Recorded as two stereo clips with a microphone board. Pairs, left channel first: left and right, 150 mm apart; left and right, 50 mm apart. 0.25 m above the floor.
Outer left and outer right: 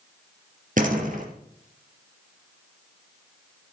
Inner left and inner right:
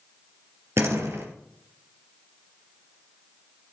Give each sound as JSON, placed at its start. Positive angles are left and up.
{"t": 0.8, "sound": "a door slam", "side_deg": -65, "distance_m": 3.5}